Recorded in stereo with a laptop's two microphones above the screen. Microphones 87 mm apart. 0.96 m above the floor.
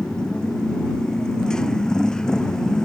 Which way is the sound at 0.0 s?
10° left (ahead or behind).